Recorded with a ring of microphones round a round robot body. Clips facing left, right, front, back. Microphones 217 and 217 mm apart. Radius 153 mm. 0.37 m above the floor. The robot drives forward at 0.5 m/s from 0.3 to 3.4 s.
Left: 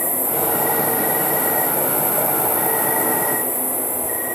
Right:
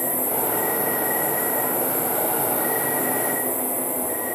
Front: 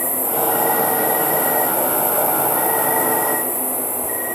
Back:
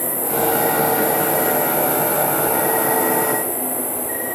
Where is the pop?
No pop in this recording.